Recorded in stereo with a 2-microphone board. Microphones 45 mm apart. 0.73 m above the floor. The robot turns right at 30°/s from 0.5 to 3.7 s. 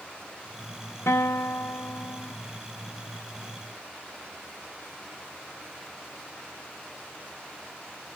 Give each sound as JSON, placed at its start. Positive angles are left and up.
{"t": 1.1, "sound": "a guitar", "azimuth_deg": 85, "distance_m": 1.0}